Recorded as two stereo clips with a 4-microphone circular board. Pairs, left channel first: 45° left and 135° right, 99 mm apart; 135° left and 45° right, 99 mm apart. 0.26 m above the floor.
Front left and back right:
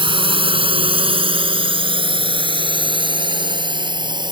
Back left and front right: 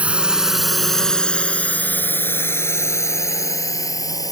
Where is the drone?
120° right; by 4.3 s 175° right.